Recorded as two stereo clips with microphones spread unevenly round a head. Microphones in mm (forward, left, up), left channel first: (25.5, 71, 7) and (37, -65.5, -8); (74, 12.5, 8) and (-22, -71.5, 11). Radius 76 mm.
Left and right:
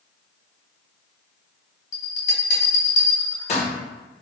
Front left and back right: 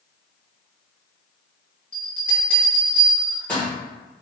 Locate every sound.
1.9 s a bell: 120° left, 1.1 m